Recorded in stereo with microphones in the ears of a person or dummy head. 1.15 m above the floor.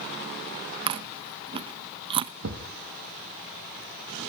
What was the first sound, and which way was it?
Chewing, 35° right (ahead or behind).